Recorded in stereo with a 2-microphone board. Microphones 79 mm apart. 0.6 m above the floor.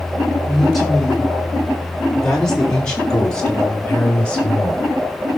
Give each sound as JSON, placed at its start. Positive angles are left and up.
{"t": 0.4, "sound": "a man speaking", "side_deg": 5, "distance_m": 6.5}